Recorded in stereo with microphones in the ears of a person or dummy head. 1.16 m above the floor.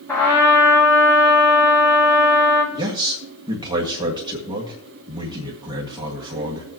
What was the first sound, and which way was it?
A trumpet, 15° left (ahead or behind).